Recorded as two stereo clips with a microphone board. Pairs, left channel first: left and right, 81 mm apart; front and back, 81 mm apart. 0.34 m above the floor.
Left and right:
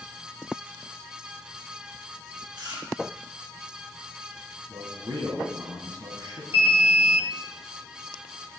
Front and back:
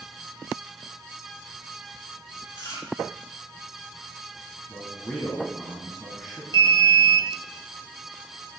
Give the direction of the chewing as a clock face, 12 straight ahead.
2 o'clock.